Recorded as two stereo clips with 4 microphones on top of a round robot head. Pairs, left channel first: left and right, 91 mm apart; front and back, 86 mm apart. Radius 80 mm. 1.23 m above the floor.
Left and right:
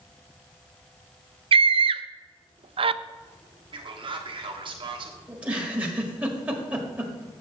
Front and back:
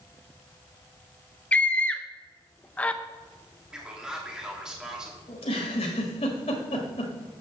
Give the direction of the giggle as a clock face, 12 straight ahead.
1 o'clock.